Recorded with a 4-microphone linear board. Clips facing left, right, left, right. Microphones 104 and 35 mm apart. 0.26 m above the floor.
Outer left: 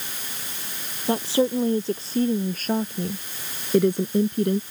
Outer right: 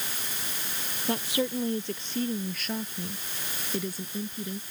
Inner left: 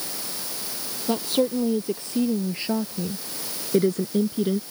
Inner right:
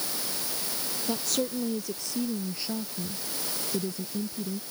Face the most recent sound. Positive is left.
turn(degrees=70)  # may be behind; listen again after turning